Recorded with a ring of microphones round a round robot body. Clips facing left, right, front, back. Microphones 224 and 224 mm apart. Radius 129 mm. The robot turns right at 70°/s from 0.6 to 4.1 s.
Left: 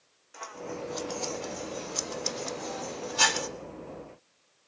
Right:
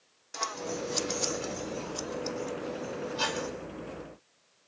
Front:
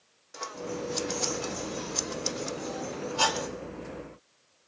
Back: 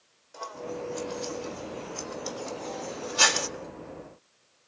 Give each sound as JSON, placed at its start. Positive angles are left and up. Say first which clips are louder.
{"t": 0.3, "sound": "scissors", "louder": "right 2 dB, front 1 dB", "azimuth_deg": -65, "distance_m": 0.5}